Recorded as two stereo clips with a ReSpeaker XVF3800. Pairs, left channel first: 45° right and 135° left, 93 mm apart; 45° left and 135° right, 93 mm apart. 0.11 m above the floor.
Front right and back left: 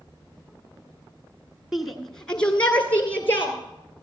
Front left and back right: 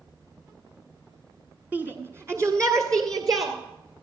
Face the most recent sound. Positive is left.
turn(degrees=-105)